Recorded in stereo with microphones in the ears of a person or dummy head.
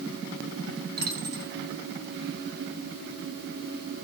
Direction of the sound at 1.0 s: 35° right (ahead or behind).